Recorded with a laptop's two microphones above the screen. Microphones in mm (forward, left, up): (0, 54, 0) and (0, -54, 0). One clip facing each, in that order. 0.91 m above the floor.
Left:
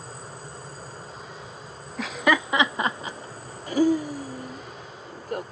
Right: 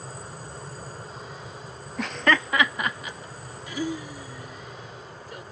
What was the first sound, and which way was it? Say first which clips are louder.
Laughter: left 1 dB; centre (ahead or behind).